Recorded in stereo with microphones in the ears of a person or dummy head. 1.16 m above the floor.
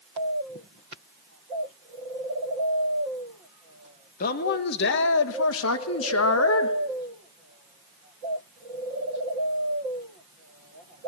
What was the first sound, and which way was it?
A man speaking, 45° left (ahead or behind).